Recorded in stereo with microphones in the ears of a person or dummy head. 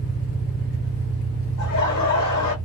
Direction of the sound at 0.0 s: 55° left (ahead or behind).